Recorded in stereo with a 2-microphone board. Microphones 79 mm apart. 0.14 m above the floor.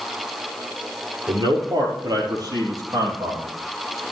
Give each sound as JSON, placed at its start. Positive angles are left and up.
{"t": 1.3, "sound": "a man speaking", "side_deg": -60, "distance_m": 4.0}